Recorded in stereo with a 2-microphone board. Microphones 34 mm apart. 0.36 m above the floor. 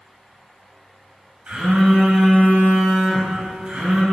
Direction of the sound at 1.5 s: 50° right (ahead or behind).